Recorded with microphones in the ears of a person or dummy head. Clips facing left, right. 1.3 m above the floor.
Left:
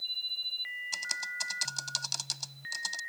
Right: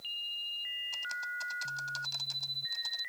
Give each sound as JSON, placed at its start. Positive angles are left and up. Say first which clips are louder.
{"t": 0.9, "sound": "typing on a keyboard", "louder": "right 1 dB", "side_deg": 70}